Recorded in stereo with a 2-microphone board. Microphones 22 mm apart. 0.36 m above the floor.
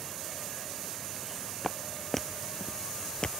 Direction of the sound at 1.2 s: 5° right (ahead or behind).